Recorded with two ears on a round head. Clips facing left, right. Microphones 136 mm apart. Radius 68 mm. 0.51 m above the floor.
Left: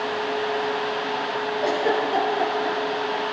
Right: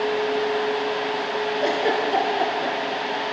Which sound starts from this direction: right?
A giggle, at 1.6 s.